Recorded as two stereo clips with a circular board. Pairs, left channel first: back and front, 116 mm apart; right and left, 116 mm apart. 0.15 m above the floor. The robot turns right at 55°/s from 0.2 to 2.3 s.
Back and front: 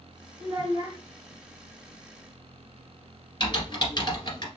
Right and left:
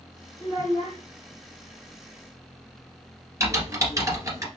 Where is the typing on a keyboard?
145° left, 1.8 m.